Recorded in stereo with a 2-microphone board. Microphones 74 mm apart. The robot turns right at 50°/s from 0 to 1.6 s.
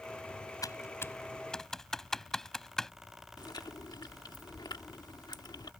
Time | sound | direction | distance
0.6 | typing on a keyboard | 55° left (ahead or behind) | ?
3.4 | chewing | 70° left (ahead or behind) | ?